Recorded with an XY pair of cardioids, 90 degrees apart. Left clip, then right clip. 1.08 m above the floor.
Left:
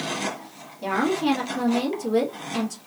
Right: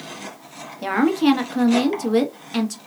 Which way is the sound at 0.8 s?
60° right.